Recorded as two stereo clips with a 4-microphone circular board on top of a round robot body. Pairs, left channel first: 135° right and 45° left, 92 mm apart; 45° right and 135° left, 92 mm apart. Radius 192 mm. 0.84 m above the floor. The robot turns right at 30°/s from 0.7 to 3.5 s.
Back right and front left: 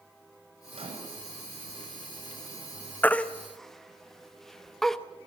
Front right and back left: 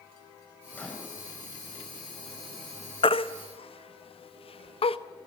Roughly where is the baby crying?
Ahead right.